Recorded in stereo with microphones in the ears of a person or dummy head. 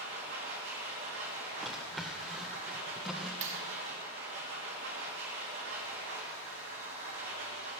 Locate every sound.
0.0 s a machine running: 55° right (ahead or behind), 1.9 m
1.6 s a drawer: 5° right (ahead or behind), 0.5 m
3.4 s a clap: 40° right (ahead or behind), 1.5 m